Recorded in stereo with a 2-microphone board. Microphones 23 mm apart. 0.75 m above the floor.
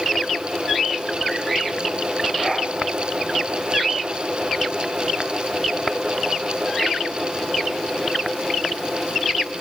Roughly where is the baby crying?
No baby crying in this recording.